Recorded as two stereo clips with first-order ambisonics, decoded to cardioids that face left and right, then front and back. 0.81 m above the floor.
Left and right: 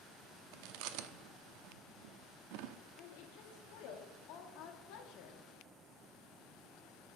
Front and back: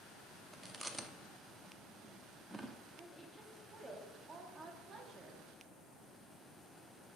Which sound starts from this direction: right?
Chewing, at 0.5 s.